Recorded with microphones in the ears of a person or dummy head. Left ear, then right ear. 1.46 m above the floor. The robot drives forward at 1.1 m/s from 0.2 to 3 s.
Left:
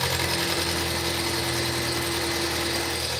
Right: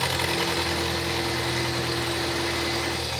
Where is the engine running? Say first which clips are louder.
Even; 5° right (ahead or behind), 0.7 m; by 3.2 s centre (ahead or behind), 4 m.